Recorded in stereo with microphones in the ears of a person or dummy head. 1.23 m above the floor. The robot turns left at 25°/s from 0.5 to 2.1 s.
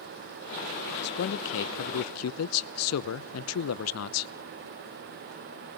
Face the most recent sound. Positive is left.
turn(degrees=75)  # may be behind; listen again after turning